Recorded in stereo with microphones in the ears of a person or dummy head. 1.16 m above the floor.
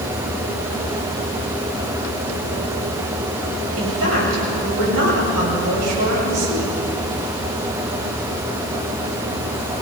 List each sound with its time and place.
3.8 s a woman speaking: 85° right, 7 m